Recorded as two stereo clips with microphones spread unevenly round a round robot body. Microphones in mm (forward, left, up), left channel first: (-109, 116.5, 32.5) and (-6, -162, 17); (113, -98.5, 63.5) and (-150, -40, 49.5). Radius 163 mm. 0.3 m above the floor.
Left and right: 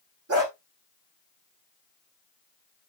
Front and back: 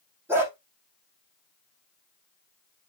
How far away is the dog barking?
About 6.5 m.